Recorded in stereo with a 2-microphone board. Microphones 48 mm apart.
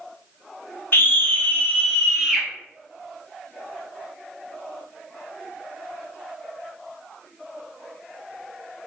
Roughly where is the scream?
Left.